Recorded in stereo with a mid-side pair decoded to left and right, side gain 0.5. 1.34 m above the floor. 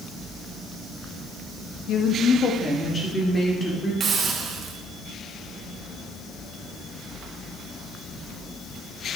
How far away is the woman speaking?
About 1.3 m.